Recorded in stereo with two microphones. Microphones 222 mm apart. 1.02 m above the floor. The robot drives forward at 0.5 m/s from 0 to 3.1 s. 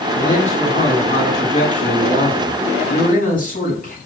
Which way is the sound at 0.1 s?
30° left (ahead or behind).